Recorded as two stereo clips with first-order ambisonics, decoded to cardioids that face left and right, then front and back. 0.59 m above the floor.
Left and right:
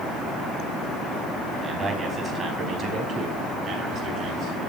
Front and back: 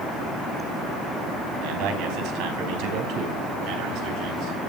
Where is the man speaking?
160° right, 4.5 m; by 4.6 s 140° right, 5.5 m.